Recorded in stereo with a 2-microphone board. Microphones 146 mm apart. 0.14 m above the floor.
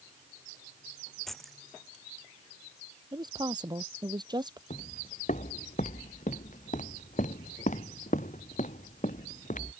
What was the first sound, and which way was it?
Keys jangling, centre (ahead or behind).